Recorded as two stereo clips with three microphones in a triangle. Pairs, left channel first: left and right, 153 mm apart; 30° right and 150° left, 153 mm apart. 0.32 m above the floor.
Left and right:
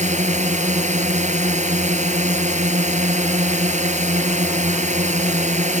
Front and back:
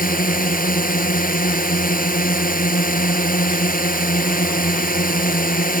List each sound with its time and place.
0.0 s a drone: 50° right